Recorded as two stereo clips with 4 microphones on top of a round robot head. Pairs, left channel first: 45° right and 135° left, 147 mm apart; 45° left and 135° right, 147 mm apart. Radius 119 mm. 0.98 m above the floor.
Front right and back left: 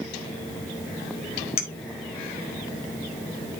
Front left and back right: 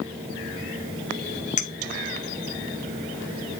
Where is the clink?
5° left, 0.8 m.